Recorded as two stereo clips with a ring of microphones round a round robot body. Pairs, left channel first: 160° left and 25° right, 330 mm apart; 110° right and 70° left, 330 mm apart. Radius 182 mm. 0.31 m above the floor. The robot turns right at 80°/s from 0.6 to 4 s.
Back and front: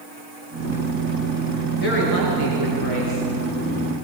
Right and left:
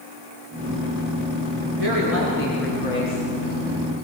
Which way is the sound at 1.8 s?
90° left.